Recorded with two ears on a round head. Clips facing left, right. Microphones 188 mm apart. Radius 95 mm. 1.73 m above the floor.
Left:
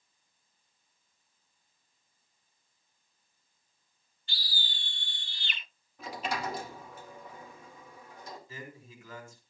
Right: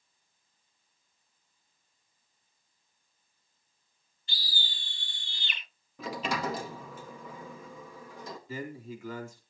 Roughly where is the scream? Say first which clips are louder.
Right 1 dB; right.